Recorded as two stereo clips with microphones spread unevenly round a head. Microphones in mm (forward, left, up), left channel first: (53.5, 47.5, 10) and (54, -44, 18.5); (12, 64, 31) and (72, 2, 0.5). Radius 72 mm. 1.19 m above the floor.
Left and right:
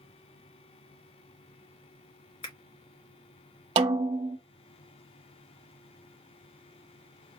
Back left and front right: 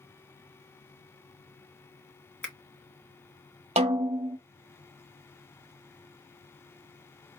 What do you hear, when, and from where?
2.4 s a finger snap: 65° left, 1.9 m
3.8 s a snare drum: 100° right, 0.6 m